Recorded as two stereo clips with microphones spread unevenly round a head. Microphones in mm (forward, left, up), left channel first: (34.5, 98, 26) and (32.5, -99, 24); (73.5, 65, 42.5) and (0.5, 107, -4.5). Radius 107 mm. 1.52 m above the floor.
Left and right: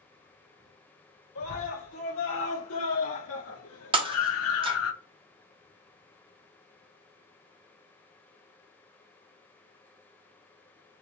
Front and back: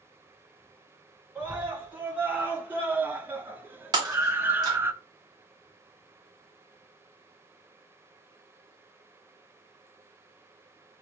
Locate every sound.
1.4 s a scream: 80° left, 3 m; by 4.9 s 85° left, 0.8 m
3.9 s breaking glass: 130° right, 0.6 m